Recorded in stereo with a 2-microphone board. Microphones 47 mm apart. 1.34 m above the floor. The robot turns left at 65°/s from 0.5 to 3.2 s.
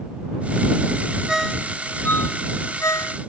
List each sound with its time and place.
1.3 s a ringtone: 10° right (ahead or behind); by 3.2 s 65° left (ahead or behind)